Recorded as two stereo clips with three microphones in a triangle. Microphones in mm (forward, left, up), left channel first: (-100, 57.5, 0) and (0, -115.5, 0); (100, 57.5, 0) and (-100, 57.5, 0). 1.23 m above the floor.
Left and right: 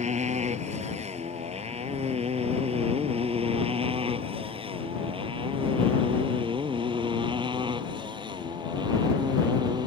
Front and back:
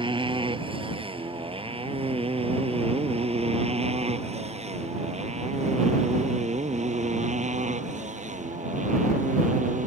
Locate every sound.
0.0 s a motorcycle: 115° right; by 9.9 s 130° right